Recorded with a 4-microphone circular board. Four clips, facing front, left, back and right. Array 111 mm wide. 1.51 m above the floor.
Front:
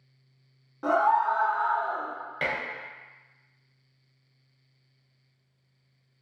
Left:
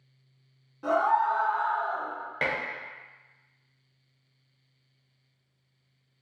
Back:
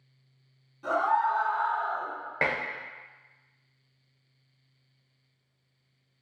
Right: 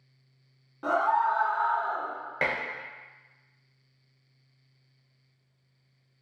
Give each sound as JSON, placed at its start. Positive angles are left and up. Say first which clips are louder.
{"t": 0.8, "sound": "a scream", "louder": "left 1 dB, front 3 dB", "azimuth_deg": -25, "distance_m": 0.8}
{"t": 2.4, "sound": "dishes clattering", "louder": "right 1 dB, back 2 dB", "azimuth_deg": -165, "distance_m": 0.5}